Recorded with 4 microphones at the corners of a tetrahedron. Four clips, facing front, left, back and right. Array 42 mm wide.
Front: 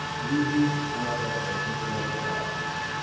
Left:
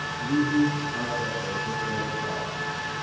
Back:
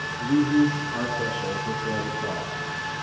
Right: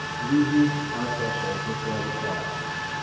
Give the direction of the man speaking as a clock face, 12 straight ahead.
6 o'clock.